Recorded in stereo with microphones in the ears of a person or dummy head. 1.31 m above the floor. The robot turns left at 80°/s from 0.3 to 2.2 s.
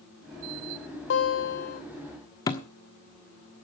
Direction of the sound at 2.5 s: 25° left (ahead or behind).